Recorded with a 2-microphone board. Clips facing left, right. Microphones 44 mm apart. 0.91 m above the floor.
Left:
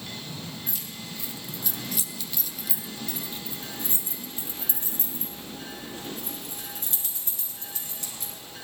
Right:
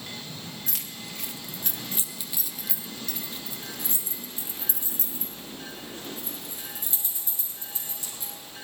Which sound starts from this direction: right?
Keys jangling, at 0.7 s.